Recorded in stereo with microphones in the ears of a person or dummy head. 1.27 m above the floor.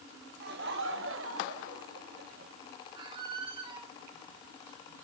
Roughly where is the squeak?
Right.